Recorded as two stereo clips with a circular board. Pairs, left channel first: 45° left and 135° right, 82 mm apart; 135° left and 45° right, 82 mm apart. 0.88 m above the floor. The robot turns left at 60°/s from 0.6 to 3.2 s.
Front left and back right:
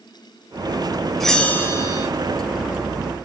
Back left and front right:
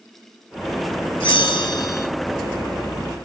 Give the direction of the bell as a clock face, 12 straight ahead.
8 o'clock.